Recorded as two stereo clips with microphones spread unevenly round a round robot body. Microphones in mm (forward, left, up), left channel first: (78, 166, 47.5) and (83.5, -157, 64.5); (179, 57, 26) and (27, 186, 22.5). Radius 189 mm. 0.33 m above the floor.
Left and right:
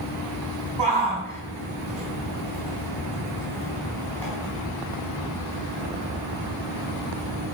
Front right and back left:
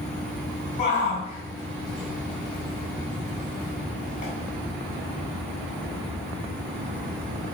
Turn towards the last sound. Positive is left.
turn(degrees=5)